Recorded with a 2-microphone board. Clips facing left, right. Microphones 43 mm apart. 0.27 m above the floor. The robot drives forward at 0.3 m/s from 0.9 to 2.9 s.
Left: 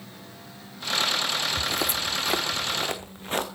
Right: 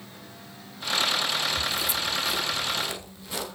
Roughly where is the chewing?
No chewing in this recording.